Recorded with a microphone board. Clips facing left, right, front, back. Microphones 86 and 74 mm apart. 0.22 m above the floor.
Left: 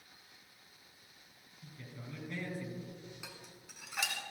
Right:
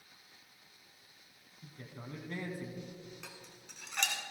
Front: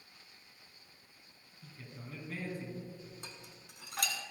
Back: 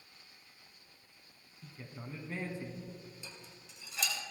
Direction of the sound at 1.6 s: 125° right.